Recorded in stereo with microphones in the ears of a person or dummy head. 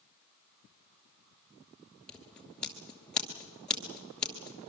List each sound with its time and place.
2.1 s scissors: centre (ahead or behind), 2.5 m